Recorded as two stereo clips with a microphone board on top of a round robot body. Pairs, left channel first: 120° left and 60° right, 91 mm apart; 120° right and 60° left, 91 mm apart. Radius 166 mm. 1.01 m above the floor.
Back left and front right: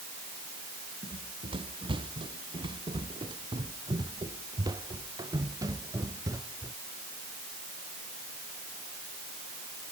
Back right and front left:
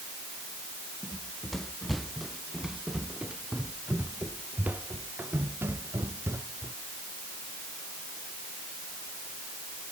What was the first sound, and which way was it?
Running footsteps, 35° right.